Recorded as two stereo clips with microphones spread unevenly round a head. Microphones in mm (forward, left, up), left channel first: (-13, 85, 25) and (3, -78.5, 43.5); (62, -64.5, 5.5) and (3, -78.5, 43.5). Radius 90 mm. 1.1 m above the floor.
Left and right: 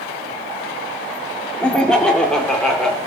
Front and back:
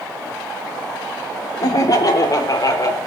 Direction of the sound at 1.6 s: 10° left.